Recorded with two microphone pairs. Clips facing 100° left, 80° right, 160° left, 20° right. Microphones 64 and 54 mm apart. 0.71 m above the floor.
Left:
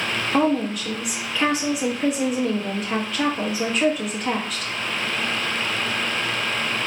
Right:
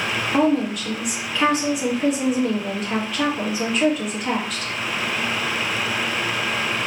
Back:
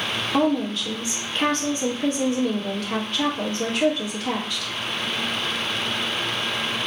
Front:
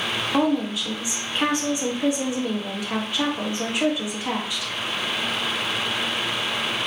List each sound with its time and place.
0.3 s a woman speaking: 20° left, 1.1 m